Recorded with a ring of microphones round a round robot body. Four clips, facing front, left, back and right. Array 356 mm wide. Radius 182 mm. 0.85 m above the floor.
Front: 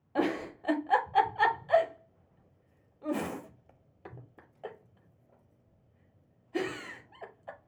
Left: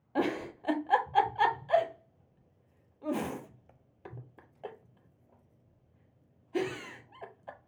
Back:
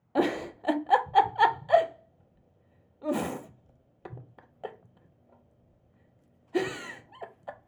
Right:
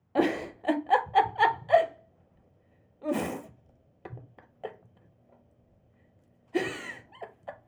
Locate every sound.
0.1 s a giggle: 140° right, 0.6 m